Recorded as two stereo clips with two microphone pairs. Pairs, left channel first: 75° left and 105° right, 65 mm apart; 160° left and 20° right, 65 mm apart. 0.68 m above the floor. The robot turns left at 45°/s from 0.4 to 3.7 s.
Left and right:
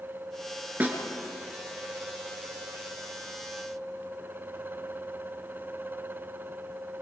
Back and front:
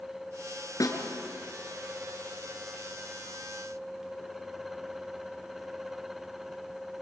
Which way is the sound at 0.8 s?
170° right.